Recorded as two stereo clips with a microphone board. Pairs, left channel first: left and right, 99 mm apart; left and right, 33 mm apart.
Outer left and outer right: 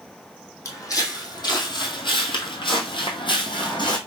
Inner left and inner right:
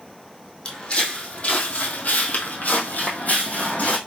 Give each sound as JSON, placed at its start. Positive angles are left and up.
{"t": 0.7, "sound": "footsteps", "side_deg": 30, "distance_m": 1.4}